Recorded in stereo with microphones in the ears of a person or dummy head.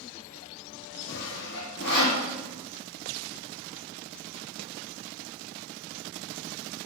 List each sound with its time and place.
1.1 s sawing: 60° left (ahead or behind), 2.5 m